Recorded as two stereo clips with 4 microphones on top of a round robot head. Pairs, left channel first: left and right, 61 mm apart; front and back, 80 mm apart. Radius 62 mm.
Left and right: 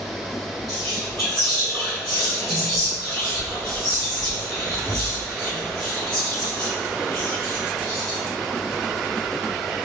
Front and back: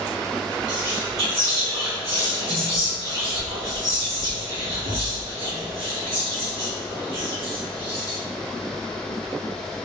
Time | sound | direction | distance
0.7 | whispering | 175° left | 0.8 m